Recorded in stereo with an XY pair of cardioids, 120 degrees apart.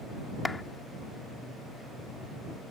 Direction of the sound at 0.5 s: 15° left.